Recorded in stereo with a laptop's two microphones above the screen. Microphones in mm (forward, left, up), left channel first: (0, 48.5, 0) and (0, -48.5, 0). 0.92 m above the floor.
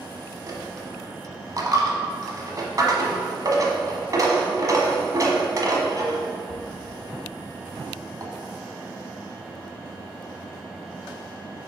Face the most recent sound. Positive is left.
turn(degrees=-45)  # may be behind; listen again after turning